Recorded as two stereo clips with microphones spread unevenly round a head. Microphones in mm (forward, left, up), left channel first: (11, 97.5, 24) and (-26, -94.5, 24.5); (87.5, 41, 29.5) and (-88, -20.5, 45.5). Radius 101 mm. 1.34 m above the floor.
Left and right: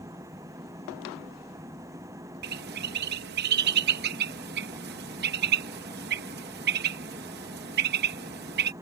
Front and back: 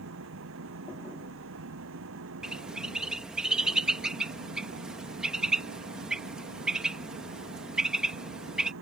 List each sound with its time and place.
0.0 s an engine running: 175° right
2.4 s a bird: 80° right